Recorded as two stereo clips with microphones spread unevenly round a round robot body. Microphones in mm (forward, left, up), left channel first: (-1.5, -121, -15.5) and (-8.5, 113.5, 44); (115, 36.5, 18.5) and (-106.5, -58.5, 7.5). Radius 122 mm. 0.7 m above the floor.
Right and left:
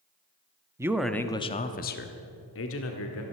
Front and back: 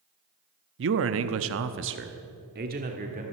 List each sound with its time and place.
0.8 s a man speaking: 175° left, 0.7 m; by 3.2 s 100° right, 1.6 m